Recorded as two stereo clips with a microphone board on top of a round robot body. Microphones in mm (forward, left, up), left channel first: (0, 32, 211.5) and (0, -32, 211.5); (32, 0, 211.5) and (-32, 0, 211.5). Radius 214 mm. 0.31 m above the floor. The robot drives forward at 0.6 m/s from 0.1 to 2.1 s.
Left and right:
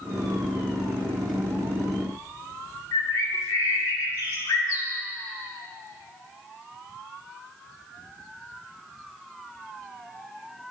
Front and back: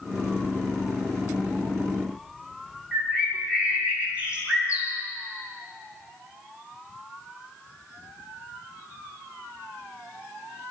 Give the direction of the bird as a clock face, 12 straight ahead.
8 o'clock.